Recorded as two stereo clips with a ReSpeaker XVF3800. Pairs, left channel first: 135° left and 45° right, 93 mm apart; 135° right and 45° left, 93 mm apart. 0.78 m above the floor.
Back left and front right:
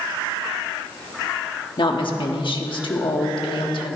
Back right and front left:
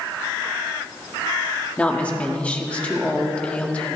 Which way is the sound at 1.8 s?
150° left.